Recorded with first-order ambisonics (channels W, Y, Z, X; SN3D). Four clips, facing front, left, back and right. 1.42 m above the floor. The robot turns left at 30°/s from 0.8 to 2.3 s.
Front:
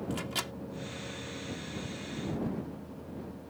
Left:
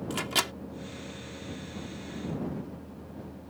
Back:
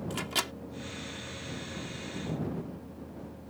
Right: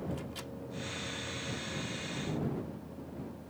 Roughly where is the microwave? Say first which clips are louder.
Left 12 dB, back 4 dB; left.